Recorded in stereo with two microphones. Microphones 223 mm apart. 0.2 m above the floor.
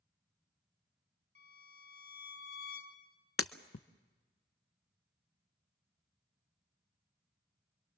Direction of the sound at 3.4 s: 75° left (ahead or behind).